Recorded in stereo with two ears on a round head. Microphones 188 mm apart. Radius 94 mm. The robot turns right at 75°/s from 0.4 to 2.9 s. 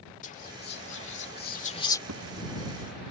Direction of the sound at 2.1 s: 75° right (ahead or behind).